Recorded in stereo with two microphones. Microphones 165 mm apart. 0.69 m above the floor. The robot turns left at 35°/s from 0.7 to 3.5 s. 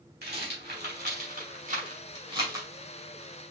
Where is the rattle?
80° right, 2 m; by 2.7 s 15° right (ahead or behind), 2 m.